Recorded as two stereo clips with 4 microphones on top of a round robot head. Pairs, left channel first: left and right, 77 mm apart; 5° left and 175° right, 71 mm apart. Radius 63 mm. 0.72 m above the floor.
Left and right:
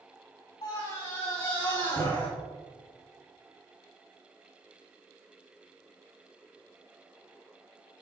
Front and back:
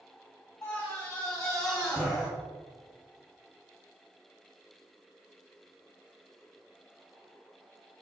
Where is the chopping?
I don't hear chopping.